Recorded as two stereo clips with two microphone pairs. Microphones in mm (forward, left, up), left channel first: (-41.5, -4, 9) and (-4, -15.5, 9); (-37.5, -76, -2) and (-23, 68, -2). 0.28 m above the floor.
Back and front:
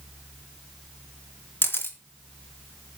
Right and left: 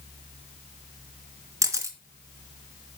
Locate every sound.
1.6 s a camera shutter: 155° left, 2.5 m